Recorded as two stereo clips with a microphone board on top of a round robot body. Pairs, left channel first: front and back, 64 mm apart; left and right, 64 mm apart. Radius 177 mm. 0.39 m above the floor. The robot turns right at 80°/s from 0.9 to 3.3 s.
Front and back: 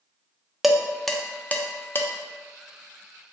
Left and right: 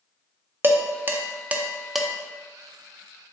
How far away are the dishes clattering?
About 0.5 m.